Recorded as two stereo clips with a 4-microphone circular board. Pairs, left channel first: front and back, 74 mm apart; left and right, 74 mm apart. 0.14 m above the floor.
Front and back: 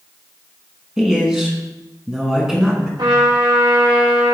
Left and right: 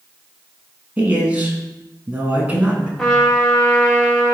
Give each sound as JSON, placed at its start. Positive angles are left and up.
{"t": 1.0, "sound": "a man speaking", "azimuth_deg": -115, "distance_m": 1.2}
{"t": 3.0, "sound": "a trumpet", "azimuth_deg": 175, "distance_m": 2.0}